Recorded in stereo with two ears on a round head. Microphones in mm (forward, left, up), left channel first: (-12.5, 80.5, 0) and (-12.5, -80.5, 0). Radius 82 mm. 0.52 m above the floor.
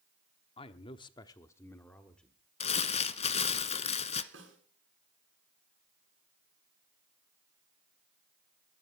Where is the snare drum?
70° right (ahead or behind), 7 m.